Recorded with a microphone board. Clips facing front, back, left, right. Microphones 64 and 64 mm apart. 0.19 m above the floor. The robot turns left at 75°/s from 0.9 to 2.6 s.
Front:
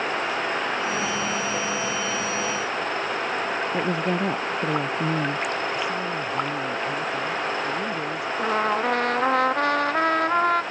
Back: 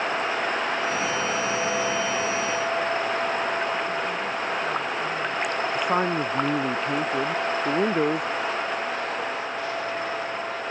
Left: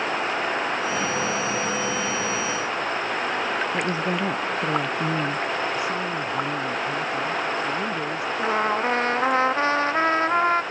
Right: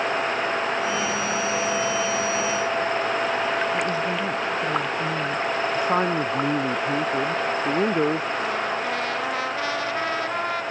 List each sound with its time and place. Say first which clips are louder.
3.7 s a woman speaking: front 3 dB, even; 20° left
5.8 s a man speaking: back 3 dB, right 4 dB; 140° right
8.4 s a trumpet: front 4 dB, left 3 dB; 30° left